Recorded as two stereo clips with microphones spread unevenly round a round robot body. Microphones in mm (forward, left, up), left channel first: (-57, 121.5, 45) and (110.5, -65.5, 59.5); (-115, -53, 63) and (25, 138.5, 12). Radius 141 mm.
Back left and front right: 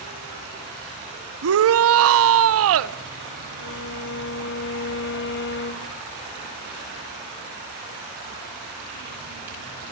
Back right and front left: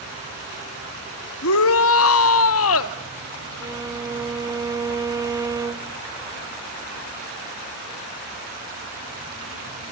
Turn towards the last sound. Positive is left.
turn(degrees=115)